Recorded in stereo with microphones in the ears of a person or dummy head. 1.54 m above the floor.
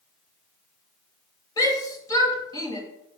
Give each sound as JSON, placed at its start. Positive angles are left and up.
{"t": 1.6, "sound": "a shout", "side_deg": 25, "distance_m": 2.5}